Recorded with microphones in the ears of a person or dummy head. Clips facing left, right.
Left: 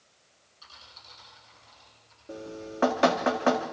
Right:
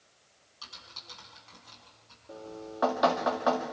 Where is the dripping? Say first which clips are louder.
Left 3 dB; 30° left (ahead or behind), 1.7 m.